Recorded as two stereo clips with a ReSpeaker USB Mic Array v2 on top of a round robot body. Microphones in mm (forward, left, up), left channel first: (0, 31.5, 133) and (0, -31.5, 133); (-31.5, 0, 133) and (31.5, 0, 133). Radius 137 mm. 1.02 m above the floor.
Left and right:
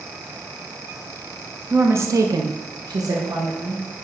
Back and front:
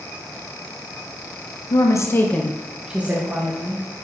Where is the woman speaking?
150° right, 0.9 m; by 3.8 s 50° right, 1.6 m.